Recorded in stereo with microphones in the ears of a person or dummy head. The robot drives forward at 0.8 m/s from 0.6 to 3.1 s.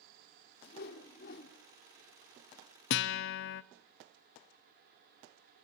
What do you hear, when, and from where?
0.6 s a whoosh: 55° left (ahead or behind), 3 m; by 1.6 s 65° left (ahead or behind), 2.5 m
2.9 s a guitar: 70° left (ahead or behind), 0.8 m